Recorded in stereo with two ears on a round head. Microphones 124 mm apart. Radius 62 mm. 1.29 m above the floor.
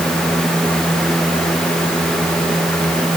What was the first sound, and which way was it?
Only background noise.